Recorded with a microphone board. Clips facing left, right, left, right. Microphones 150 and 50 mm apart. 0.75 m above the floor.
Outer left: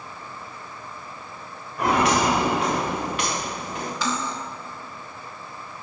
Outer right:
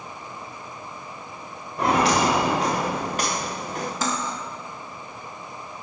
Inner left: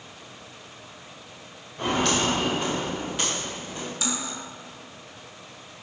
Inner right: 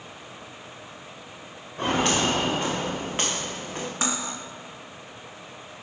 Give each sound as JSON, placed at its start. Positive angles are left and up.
{"t": 1.8, "sound": "footsteps", "side_deg": -30, "distance_m": 3.5}
{"t": 4.0, "sound": "cutlery clinking", "side_deg": -45, "distance_m": 0.8}